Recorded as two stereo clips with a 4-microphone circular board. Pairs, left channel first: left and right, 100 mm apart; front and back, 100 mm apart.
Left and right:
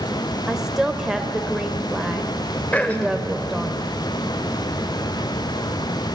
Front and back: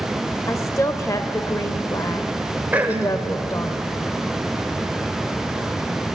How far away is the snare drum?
No snare drum in this recording.